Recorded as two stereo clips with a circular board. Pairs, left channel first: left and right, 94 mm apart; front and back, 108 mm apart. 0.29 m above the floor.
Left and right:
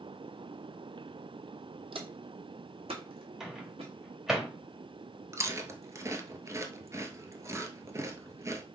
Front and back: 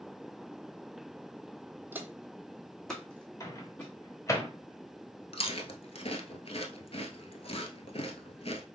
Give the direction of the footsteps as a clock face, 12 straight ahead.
4 o'clock.